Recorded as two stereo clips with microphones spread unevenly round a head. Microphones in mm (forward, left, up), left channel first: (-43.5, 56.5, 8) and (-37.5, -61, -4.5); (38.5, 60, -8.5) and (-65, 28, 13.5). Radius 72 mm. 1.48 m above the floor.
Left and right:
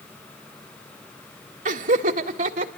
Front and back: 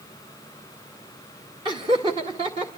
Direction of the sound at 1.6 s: 100° right.